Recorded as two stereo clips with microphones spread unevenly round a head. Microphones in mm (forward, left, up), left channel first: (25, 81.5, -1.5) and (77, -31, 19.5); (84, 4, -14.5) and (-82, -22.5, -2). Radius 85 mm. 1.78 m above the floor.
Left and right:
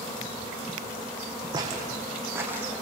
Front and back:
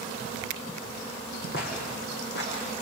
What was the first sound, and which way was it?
Footsteps, 15° right.